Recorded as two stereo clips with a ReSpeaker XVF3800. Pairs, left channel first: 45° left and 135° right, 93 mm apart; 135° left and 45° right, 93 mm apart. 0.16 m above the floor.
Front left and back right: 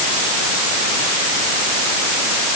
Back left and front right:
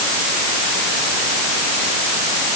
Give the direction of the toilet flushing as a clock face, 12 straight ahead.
No toilet flushing in this recording.